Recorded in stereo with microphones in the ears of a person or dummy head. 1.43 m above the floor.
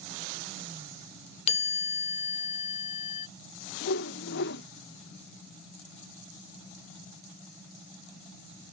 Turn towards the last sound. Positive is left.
turn(degrees=60)  # may be behind; listen again after turning